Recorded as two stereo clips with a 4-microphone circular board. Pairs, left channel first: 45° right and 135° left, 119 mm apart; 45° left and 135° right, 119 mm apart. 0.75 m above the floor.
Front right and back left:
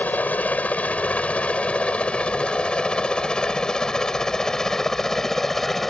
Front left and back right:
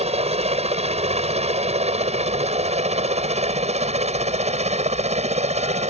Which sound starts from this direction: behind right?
A helicopter, at 0.0 s.